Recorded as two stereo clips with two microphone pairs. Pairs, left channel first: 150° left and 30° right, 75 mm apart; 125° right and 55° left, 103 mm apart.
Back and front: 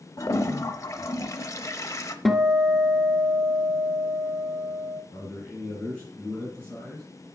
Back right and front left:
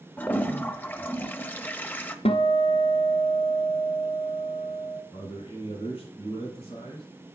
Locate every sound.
0.2 s a toilet flushing: 165° left, 0.8 m
2.2 s a guitar: 125° right, 0.8 m
5.1 s a man speaking: 140° right, 4.5 m